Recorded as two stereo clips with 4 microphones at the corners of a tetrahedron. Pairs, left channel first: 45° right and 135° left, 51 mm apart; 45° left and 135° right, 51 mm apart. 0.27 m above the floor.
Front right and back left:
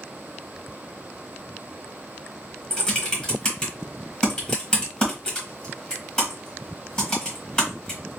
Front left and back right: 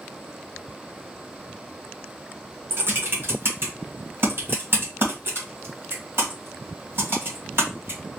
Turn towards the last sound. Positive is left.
turn(degrees=-115)